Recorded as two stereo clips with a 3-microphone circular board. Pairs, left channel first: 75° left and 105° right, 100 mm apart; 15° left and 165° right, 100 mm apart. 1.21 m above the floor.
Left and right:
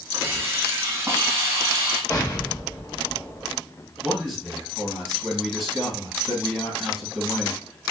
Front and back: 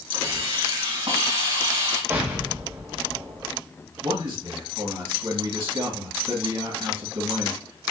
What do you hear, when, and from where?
0.1 s a hiss: 165° right, 2.5 m
2.1 s an explosion: 130° left, 1.1 m
4.0 s a man speaking: 165° left, 3 m